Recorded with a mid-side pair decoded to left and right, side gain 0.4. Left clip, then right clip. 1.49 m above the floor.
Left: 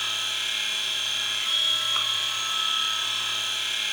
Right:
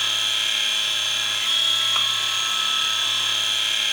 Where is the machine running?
50° right, 1.6 m.